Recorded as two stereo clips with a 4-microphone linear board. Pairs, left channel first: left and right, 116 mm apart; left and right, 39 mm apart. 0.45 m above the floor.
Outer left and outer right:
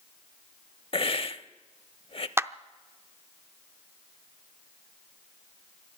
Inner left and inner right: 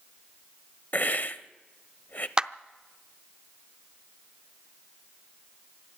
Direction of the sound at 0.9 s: 50° left (ahead or behind).